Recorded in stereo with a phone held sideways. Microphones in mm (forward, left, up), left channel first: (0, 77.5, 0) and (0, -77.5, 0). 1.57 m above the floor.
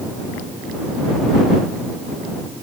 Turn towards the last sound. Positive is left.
No sound to turn to.